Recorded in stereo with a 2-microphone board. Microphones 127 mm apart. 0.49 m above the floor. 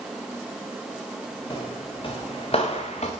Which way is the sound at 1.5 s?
40° left (ahead or behind).